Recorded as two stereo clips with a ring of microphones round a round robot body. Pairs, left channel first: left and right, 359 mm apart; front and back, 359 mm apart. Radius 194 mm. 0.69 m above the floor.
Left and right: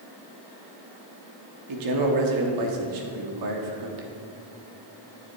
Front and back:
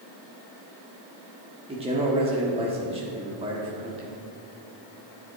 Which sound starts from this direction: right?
A man speaking, at 1.7 s.